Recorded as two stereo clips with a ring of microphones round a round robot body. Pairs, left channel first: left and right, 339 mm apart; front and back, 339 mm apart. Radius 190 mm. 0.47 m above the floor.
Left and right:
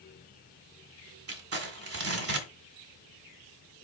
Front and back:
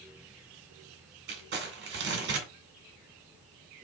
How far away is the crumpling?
About 2 m.